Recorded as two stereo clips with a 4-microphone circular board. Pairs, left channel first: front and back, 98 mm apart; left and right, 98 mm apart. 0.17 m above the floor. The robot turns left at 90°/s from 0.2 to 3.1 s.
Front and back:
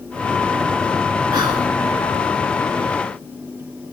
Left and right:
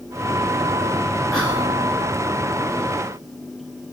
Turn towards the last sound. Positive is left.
turn(degrees=20)